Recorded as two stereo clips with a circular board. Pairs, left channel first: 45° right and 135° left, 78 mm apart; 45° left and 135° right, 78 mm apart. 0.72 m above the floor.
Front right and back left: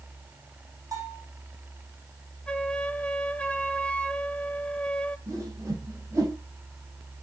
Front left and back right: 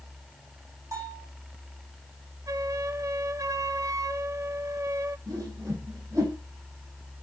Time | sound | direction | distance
0.9 | a bell | straight behind | 5 m
2.5 | a flute | 115° right | 0.6 m
5.3 | a whoosh | straight behind | 5 m